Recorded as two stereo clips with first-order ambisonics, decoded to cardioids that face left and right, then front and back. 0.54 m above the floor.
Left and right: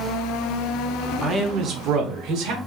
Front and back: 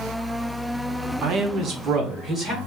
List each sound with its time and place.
1.2 s a man speaking: 160° right, 0.8 m; by 2.6 s 110° right, 1.5 m